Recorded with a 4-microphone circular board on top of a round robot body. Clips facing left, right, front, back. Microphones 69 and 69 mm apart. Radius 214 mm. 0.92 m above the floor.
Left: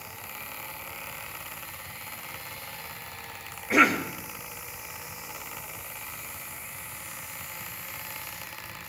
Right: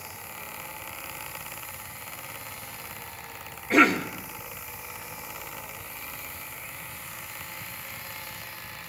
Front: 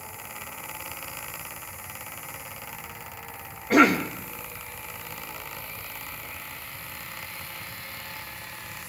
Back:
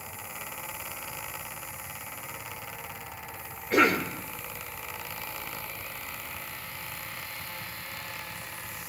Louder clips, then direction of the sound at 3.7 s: Right 1 dB, front 4 dB; 10° left.